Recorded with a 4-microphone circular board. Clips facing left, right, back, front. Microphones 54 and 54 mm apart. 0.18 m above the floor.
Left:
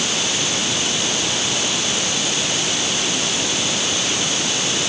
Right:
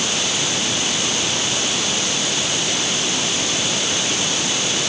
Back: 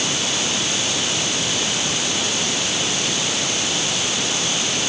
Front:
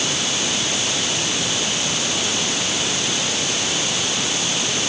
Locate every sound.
Only background noise.